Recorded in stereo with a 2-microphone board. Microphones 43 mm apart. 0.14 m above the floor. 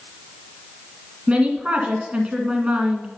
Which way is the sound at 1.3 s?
25° right (ahead or behind).